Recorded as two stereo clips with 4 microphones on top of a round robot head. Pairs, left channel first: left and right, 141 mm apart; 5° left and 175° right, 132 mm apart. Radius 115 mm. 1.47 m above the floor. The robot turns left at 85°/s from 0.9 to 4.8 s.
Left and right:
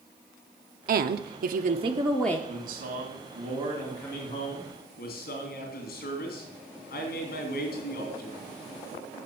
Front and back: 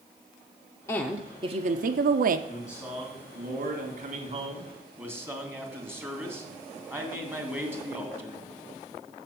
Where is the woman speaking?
70° right, 0.5 m; by 2.4 s 165° left, 0.5 m.